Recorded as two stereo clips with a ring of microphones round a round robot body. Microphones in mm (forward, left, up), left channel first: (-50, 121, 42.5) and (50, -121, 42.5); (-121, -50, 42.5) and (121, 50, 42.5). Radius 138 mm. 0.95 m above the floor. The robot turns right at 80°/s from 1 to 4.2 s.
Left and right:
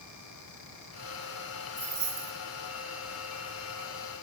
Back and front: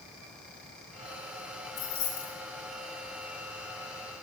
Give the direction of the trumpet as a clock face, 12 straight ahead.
No trumpet in this recording.